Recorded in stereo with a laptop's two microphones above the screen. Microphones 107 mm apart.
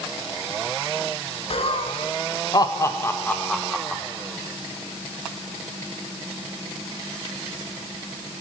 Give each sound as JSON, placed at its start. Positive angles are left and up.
{"t": 1.5, "sound": "laughter", "side_deg": 65, "distance_m": 1.5}